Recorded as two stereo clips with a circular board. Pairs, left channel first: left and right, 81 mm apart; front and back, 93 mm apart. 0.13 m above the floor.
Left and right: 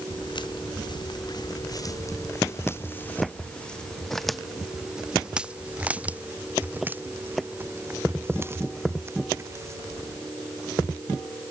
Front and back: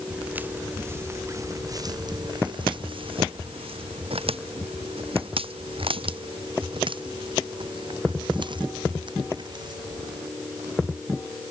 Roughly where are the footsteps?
Left.